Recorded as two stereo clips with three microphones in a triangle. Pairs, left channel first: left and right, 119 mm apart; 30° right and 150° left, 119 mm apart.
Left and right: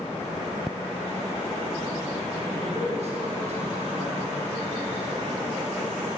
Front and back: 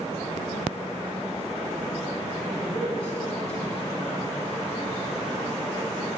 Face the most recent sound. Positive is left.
turn(degrees=-115)